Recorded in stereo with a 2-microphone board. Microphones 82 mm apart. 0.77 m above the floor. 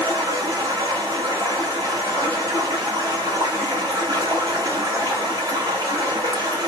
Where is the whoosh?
No whoosh in this recording.